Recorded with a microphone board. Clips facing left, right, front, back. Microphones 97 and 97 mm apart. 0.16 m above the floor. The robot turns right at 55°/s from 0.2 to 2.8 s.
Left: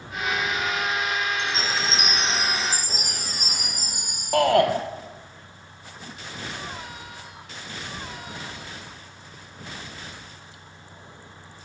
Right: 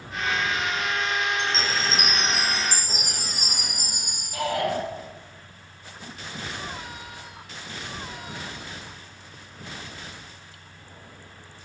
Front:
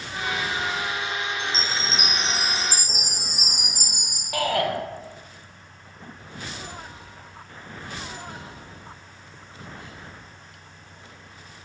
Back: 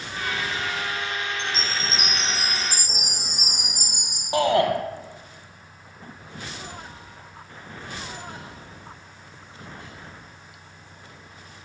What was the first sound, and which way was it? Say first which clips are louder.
A chime: even, even; 165° right.